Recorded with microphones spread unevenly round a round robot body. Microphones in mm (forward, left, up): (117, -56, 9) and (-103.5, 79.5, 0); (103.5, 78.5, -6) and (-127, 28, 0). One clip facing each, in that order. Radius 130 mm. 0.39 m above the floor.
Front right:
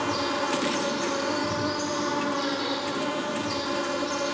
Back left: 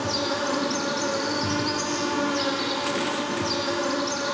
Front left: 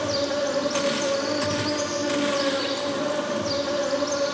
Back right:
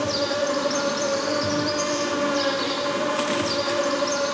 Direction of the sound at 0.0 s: 110° left.